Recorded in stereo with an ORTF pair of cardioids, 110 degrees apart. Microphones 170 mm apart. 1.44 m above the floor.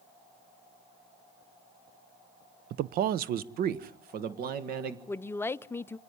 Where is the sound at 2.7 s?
70° right, 0.6 m; by 5.0 s 65° right, 1.9 m.